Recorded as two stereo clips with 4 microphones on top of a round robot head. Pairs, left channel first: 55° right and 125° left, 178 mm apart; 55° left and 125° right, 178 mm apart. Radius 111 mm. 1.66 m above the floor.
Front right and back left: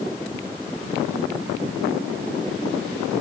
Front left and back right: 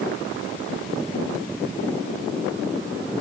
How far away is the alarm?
I don't hear an alarm.